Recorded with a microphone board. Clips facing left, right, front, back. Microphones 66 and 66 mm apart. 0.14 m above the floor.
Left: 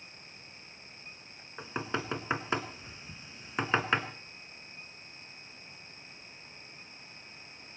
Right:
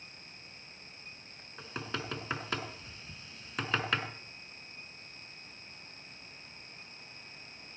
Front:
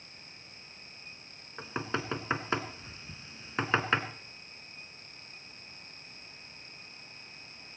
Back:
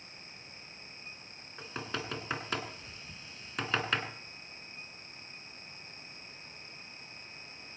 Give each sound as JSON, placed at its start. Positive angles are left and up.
{"t": 1.6, "sound": "knocking", "azimuth_deg": 40, "distance_m": 1.2}